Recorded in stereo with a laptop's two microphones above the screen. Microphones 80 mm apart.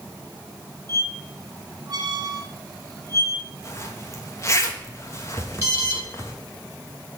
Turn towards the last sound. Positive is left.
turn(degrees=-35)  # may be behind; listen again after turning